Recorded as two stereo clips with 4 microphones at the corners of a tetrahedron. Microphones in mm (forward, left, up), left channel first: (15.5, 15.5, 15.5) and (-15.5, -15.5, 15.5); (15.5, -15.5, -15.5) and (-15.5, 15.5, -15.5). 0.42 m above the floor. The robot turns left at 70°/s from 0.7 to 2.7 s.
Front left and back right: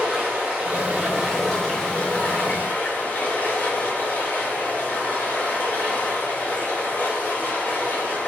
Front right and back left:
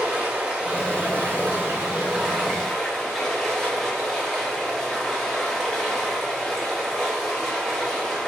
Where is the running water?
Straight behind, 0.8 m; by 8.3 s 40° left, 0.8 m.